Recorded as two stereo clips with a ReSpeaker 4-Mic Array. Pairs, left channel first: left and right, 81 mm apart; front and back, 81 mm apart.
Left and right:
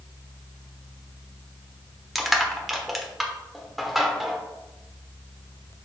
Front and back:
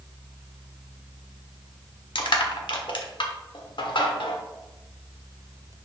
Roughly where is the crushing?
Ahead.